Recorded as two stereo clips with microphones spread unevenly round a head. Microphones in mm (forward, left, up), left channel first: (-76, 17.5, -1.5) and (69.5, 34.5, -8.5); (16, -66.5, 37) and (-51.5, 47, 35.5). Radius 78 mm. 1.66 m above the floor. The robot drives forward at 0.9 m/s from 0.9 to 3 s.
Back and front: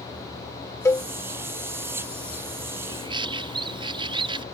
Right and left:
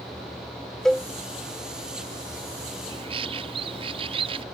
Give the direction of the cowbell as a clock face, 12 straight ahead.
5 o'clock.